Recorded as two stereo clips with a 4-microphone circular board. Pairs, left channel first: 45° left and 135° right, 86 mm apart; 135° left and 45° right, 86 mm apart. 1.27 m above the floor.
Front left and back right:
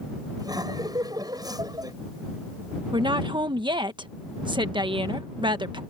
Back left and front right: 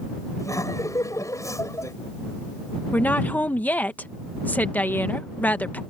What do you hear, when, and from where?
0.4 s laughter: 175° right
2.9 s a woman speaking: 155° right